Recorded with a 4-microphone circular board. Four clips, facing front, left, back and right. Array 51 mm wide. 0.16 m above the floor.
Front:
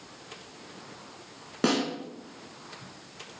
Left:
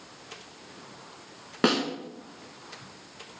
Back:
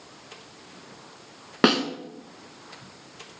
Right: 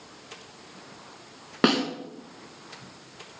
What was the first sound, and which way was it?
A snare drum, 170° right.